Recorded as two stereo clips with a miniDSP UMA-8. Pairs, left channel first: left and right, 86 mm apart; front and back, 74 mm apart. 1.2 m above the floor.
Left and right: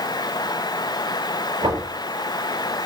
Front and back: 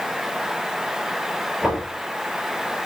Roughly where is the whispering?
I don't hear whispering.